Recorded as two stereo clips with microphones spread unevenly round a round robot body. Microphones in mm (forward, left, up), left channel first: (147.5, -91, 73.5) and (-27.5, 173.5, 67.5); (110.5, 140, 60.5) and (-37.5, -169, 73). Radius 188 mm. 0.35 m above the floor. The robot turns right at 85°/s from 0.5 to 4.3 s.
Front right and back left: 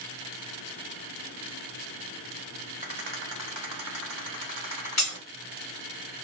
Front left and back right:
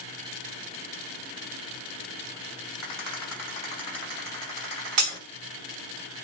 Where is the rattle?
65° left, 1.8 m; by 5.2 s 170° right, 1.8 m.